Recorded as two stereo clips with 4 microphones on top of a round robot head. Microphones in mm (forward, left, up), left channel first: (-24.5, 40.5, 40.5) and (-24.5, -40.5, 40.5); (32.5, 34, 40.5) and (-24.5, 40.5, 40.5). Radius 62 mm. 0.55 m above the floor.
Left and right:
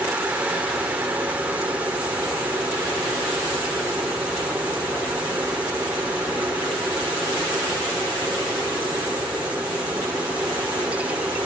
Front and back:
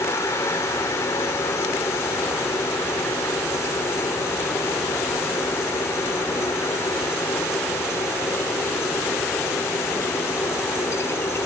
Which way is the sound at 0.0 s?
20° right.